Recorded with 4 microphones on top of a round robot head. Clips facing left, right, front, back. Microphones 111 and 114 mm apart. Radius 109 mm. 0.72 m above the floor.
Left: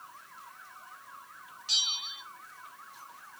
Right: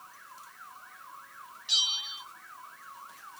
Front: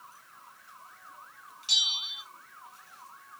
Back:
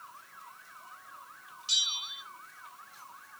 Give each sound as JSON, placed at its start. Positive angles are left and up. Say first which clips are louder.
{"t": 1.7, "sound": "a bell", "louder": "right 1 dB, front 2 dB", "azimuth_deg": 35, "distance_m": 1.8}